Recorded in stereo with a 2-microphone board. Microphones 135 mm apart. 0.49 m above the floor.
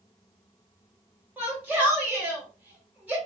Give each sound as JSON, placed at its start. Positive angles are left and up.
{"t": 1.4, "sound": "a shout", "side_deg": -10, "distance_m": 1.7}